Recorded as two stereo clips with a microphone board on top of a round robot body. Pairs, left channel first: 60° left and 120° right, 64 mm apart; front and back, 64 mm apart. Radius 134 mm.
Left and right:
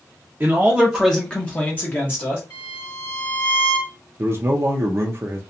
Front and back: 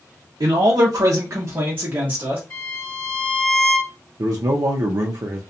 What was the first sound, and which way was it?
A man speaking, straight behind.